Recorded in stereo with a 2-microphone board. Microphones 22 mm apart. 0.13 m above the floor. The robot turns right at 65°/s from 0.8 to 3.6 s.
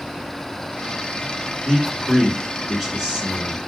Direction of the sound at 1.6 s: 135° left.